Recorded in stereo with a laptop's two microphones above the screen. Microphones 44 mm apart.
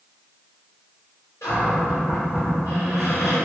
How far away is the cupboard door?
About 1.5 m.